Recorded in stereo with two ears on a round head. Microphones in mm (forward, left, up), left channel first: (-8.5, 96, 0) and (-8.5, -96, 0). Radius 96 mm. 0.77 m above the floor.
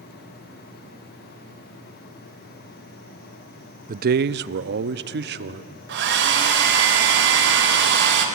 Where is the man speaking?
40° right (ahead or behind), 0.5 m; by 5.7 s 50° right (ahead or behind), 1.3 m.